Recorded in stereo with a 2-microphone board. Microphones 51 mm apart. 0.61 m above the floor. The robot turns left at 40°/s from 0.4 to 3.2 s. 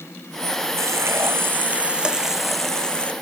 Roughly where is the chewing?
I don't hear chewing.